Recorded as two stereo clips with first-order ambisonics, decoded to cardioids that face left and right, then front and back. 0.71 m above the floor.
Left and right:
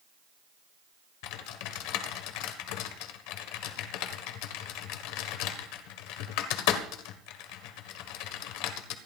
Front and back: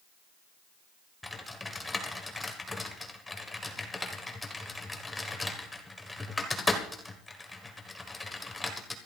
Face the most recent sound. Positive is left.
turn(degrees=80)